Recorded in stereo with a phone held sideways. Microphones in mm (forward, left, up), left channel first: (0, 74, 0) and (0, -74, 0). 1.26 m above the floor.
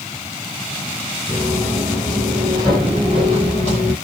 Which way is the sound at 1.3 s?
10° right (ahead or behind).